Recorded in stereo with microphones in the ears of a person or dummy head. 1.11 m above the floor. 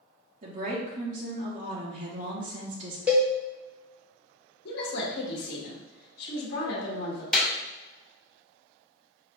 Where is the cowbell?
10° right (ahead or behind), 0.7 m.